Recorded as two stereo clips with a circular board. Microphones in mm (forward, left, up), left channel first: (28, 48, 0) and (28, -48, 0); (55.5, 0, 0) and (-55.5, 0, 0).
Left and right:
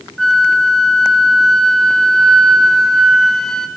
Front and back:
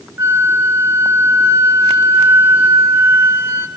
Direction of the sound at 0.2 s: 170° left.